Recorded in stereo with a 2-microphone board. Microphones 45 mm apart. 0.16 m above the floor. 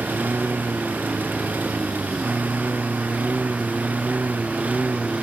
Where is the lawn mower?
50° right (ahead or behind); by 5.2 s 40° right (ahead or behind).